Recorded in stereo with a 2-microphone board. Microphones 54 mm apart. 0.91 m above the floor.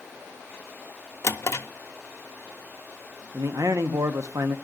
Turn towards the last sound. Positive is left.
turn(degrees=-70)  # may be behind; listen again after turning